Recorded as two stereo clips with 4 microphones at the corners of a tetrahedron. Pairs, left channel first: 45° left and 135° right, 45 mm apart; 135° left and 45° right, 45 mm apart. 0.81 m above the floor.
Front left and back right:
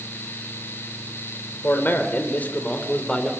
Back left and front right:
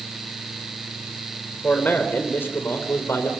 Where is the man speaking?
85° left, 3 m; by 3.3 s 115° left, 3 m.